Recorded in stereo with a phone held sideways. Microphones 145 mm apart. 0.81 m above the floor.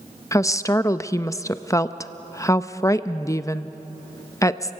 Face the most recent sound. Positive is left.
turn(degrees=20)  # may be behind; listen again after turning